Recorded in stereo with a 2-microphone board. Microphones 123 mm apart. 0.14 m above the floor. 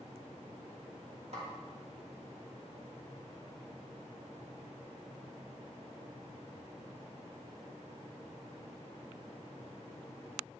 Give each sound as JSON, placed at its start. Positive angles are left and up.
{"t": 1.3, "sound": "a snare drum", "side_deg": -60, "distance_m": 3.0}